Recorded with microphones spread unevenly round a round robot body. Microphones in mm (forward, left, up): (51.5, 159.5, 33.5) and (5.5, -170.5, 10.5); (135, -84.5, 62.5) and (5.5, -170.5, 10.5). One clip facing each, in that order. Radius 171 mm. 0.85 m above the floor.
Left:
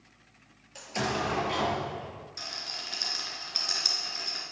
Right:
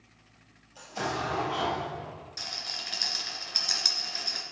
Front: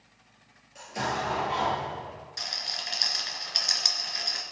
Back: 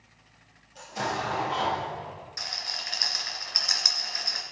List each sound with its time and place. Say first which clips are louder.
0.8 s an explosion: left 2 dB, even; 85° left, 4.5 m
2.4 s a rattle: even, even; 20° right, 3 m